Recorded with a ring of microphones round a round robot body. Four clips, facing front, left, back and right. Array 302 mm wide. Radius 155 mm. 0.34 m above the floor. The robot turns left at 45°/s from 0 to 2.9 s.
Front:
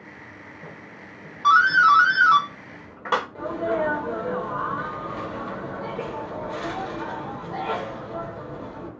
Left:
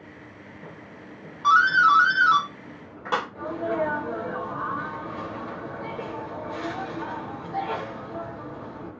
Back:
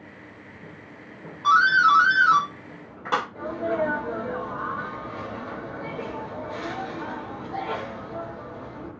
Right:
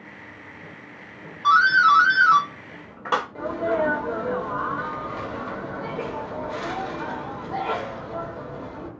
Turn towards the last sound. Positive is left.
turn(degrees=-65)